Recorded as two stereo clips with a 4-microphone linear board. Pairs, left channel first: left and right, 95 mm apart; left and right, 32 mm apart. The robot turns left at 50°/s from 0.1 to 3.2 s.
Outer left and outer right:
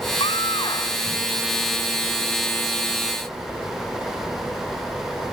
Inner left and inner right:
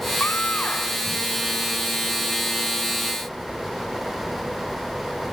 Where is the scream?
75° left; by 1.0 s 35° left.